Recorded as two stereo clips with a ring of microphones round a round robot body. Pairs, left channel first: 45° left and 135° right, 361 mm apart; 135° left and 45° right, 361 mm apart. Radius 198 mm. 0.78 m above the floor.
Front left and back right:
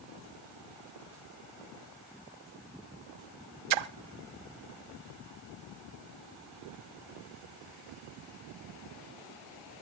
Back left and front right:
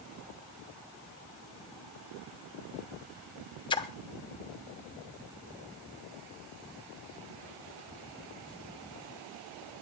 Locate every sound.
3.7 s a splash: 150° right, 0.8 m